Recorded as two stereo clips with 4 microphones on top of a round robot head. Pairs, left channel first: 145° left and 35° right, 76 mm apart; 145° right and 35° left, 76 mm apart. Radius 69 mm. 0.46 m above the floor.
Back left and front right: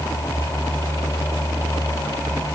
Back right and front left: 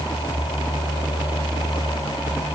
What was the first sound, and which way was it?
Only background noise.